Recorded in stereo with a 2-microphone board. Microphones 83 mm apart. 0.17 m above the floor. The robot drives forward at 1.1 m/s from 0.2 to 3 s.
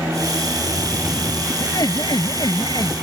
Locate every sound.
1.6 s laughter: 55° left (ahead or behind); by 2.9 s 60° left (ahead or behind)